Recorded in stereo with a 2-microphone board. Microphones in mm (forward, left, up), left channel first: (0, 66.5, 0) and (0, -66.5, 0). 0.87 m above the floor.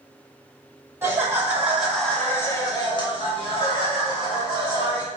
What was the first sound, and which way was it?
Laughter, 20° right (ahead or behind).